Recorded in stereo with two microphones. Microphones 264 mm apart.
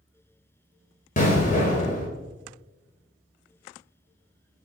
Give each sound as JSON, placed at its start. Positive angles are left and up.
{"t": 1.2, "sound": "an explosion", "side_deg": 30, "distance_m": 0.6}